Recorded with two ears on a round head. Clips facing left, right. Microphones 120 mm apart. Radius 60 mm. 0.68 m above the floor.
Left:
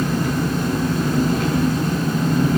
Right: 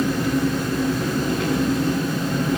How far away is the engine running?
About 4 m.